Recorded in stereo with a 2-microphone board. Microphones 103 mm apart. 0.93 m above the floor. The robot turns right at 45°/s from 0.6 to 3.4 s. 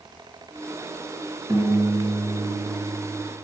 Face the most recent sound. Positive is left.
turn(degrees=-45)